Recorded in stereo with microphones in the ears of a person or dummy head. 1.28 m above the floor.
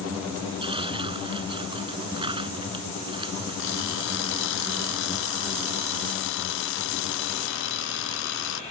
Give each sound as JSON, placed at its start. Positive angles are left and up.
{"t": 0.6, "sound": "tearing paper", "side_deg": -25}
{"t": 3.6, "sound": "an alarm clock", "side_deg": 70}